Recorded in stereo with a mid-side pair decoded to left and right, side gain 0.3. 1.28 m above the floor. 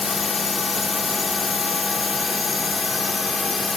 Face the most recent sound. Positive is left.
turn(degrees=45)